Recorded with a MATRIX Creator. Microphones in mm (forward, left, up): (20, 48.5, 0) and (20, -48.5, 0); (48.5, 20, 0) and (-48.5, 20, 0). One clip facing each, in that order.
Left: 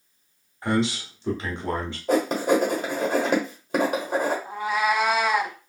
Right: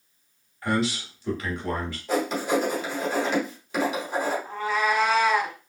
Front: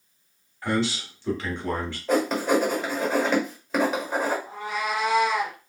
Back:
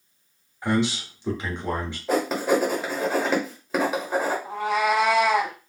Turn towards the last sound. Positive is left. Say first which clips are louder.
# left 1 dB, back 6 dB
turn(degrees=165)